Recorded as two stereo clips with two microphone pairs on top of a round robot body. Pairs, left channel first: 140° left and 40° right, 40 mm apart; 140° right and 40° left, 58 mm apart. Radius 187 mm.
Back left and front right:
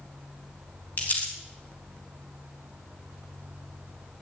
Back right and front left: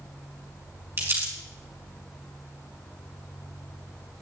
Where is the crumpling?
90° left, 3.5 m.